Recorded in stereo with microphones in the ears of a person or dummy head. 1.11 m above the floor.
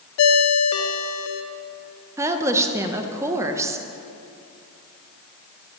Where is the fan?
I don't hear a fan.